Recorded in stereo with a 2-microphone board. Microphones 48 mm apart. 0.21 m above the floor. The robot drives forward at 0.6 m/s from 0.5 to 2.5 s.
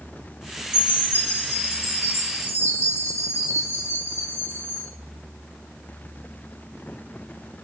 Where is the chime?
65° left (ahead or behind), 1.5 m; by 4.9 s 70° left (ahead or behind), 1.4 m.